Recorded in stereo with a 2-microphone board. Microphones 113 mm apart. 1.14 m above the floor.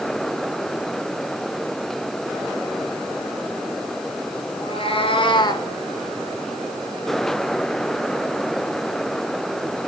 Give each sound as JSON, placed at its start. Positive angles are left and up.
{"t": 4.6, "sound": "a cat meowing", "side_deg": 55, "distance_m": 2.5}